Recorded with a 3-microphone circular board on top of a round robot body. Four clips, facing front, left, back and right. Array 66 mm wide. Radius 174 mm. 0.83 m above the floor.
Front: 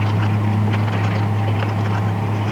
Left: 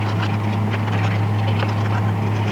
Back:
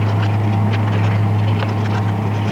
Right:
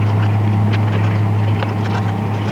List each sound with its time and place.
Only background noise.